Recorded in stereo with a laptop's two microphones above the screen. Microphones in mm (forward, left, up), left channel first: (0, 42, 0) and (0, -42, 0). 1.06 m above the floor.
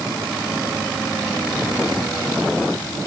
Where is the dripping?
I don't hear dripping.